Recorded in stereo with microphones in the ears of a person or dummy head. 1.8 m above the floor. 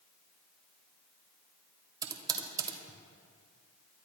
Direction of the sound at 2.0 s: 25° right (ahead or behind).